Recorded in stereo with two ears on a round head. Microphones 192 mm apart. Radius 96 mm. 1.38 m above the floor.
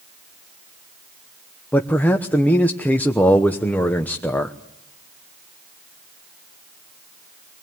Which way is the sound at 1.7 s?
10° left (ahead or behind).